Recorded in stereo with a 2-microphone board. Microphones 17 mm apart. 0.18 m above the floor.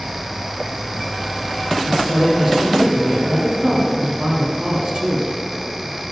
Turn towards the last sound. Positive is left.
turn(degrees=-45)  # may be behind; listen again after turning